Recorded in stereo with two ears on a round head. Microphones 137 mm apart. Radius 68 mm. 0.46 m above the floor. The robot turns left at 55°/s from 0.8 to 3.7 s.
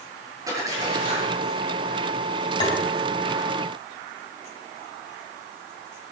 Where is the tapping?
25° left (ahead or behind), 4.5 m; by 2.8 s 35° left (ahead or behind), 4.5 m.